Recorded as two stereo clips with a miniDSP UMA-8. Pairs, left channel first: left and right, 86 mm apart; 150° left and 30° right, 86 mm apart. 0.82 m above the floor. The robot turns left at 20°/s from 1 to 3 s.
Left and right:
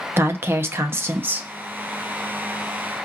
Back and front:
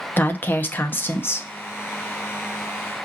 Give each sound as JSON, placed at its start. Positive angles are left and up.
{"t": 0.2, "sound": "a woman speaking", "azimuth_deg": -145, "distance_m": 0.7}